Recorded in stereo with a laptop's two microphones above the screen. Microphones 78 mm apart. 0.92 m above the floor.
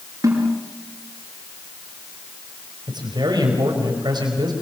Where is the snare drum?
50° right (ahead or behind), 7 m.